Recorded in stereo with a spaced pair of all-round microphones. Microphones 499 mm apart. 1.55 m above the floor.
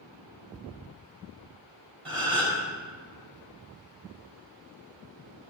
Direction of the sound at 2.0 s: 80° right.